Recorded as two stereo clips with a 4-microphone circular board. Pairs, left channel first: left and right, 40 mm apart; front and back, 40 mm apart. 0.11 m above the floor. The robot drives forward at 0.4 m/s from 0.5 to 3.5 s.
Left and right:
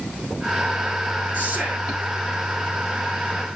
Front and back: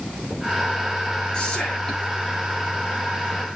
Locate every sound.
1.3 s whispering: 60° right, 1.8 m; by 2.1 s 75° right, 1.7 m